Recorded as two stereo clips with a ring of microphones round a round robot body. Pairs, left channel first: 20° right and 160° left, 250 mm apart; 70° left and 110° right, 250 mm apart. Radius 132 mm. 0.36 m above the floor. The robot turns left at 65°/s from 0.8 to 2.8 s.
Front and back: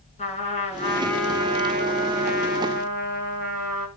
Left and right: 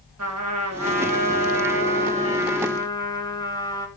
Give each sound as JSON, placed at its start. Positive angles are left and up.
{"t": 0.2, "sound": "a trumpet", "azimuth_deg": -85, "distance_m": 6.0}